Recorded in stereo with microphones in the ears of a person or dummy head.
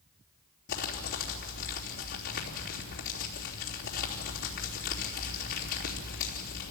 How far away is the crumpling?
About 3 m.